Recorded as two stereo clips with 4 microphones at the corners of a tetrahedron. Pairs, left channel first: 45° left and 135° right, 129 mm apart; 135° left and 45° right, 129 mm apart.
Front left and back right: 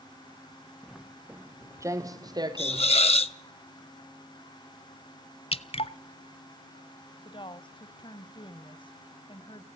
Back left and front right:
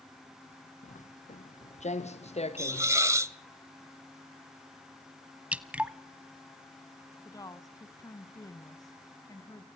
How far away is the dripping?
About 0.8 m.